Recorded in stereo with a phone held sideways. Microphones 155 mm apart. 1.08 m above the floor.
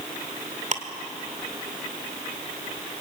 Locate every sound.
0.7 s ticking: 50° right (ahead or behind), 2 m